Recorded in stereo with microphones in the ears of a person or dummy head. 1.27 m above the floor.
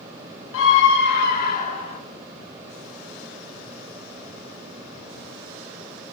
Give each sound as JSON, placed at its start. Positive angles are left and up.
{"t": 0.5, "sound": "a scream", "side_deg": 75, "distance_m": 1.7}